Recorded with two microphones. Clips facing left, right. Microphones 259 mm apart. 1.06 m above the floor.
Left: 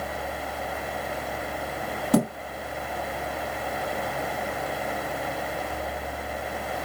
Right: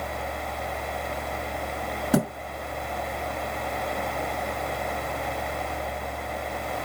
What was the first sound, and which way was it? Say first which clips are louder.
A thud: left 2 dB; 5° right (ahead or behind).